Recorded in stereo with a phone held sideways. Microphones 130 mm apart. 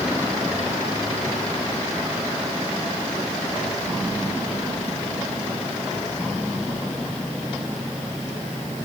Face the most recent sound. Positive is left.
No sound to turn to.